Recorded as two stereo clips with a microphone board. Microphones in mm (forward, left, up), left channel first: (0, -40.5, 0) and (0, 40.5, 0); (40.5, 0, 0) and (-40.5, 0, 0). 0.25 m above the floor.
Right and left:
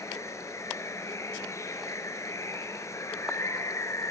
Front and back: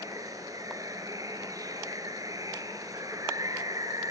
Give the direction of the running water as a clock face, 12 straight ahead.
5 o'clock.